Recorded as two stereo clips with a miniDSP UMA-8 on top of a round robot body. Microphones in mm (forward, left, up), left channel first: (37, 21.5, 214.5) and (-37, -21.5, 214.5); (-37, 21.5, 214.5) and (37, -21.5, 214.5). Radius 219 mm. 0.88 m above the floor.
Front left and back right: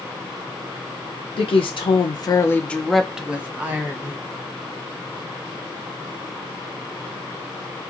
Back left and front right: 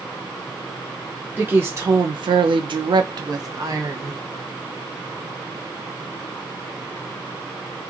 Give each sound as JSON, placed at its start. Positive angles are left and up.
{"t": 1.4, "sound": "a woman speaking", "azimuth_deg": 40, "distance_m": 0.7}